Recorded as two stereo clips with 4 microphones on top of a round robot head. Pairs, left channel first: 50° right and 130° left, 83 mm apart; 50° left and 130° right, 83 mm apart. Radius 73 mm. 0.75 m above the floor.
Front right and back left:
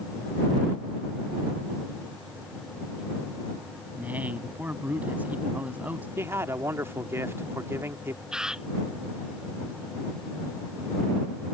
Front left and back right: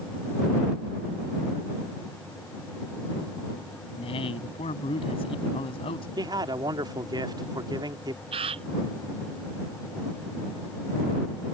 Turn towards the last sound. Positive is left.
turn(degrees=-145)